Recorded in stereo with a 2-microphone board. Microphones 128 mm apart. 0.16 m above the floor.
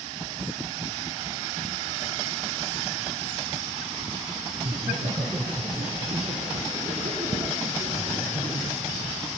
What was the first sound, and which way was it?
Laughter, 55° right (ahead or behind).